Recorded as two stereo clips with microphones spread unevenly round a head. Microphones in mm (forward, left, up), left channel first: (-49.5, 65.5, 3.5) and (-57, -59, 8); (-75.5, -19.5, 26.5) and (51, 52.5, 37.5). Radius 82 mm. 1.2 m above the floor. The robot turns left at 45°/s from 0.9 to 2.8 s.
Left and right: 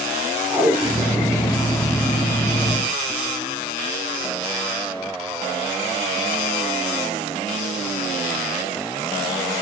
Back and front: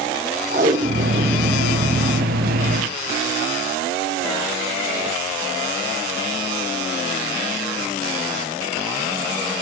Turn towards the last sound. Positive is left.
turn(degrees=-95)